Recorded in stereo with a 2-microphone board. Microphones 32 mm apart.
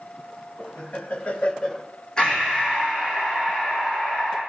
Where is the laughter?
60° left (ahead or behind), 2.5 m; by 1.9 s 10° left (ahead or behind), 1.1 m.